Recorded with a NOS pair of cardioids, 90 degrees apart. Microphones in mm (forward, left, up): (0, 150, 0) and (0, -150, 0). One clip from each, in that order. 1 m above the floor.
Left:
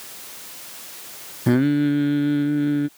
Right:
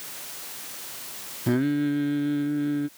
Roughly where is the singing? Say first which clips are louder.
Left 5 dB; ahead left.